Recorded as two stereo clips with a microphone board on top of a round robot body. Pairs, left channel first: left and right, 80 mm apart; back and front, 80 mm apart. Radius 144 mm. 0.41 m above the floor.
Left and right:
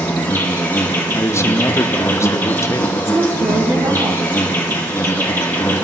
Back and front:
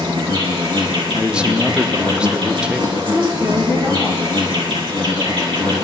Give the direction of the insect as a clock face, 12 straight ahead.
11 o'clock.